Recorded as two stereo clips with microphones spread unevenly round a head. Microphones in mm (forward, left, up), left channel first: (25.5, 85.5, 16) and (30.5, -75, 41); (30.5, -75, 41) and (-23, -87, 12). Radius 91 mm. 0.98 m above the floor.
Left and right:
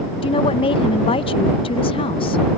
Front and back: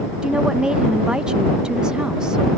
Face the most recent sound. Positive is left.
turn(degrees=135)